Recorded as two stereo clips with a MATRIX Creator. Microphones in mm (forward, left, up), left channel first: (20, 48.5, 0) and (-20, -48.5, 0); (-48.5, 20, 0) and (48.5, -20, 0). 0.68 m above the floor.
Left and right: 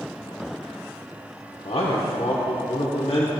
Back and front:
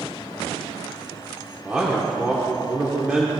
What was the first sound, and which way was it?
A man speaking, 50° left.